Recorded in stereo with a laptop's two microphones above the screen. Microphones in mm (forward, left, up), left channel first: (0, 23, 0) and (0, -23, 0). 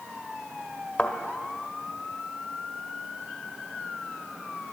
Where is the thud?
35° left (ahead or behind), 1.5 m.